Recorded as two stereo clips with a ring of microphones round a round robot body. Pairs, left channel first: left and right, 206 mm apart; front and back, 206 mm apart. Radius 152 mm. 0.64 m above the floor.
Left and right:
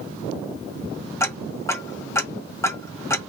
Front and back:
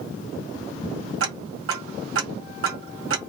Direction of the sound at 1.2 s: 165° left.